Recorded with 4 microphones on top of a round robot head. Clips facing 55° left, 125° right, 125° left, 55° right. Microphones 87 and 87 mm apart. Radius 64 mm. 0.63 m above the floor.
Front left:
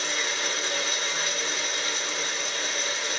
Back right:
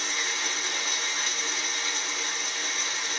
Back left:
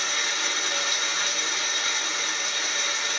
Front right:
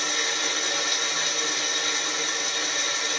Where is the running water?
5° left, 1.3 m.